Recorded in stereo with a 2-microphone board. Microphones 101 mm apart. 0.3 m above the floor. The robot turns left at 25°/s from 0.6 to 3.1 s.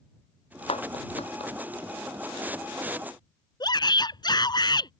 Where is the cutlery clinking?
I don't hear cutlery clinking.